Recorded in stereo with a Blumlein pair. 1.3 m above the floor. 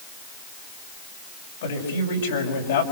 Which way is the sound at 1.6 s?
60° left.